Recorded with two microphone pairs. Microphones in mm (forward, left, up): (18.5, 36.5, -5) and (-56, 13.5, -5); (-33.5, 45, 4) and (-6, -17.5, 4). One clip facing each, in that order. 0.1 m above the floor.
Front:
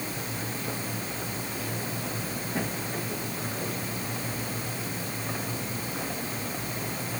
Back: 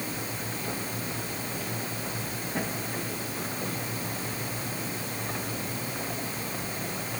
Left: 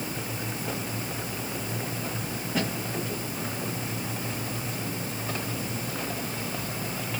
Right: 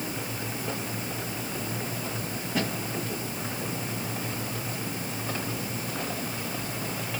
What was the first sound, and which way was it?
Only background noise.